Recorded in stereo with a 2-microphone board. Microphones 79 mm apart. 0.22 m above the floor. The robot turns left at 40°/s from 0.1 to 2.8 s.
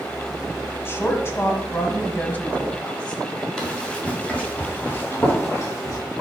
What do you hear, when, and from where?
0.8 s a woman speaking: 100° left, 1.1 m; by 3.2 s 25° left, 1.1 m
3.6 s running footsteps: 5° left (ahead or behind), 3.5 m; by 6.0 s 40° left (ahead or behind), 3.5 m